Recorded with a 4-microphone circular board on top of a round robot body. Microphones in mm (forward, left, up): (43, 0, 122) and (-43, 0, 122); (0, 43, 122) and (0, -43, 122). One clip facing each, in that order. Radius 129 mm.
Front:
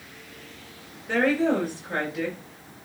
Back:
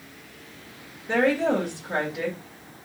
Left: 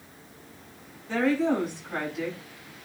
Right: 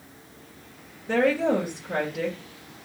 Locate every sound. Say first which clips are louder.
1.1 s a woman speaking: even, right 2 dB; 105° right, 3 m